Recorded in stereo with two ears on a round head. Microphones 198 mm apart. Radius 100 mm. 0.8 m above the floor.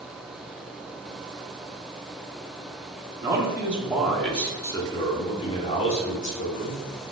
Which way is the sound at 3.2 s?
15° right (ahead or behind).